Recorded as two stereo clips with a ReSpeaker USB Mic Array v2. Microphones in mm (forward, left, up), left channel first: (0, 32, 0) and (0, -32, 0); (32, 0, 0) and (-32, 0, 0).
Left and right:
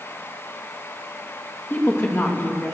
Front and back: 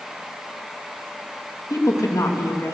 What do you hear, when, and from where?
1.7 s a woman speaking: 35° left, 3 m